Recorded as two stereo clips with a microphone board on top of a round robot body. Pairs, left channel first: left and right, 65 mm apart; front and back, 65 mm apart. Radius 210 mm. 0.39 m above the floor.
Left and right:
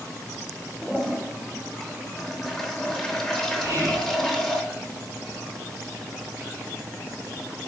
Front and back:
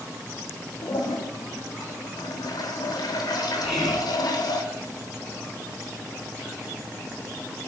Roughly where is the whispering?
Right.